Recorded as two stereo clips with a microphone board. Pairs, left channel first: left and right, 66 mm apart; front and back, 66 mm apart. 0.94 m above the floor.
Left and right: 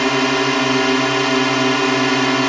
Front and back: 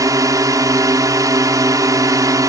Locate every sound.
0.0 s a drone: straight behind